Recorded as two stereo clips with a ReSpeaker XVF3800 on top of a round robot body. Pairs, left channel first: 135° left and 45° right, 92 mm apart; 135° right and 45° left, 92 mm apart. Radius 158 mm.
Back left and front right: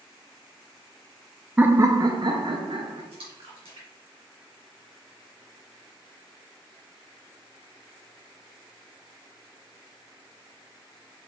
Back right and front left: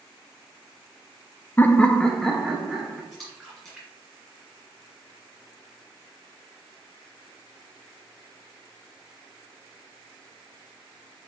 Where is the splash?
45° right, 2.5 m.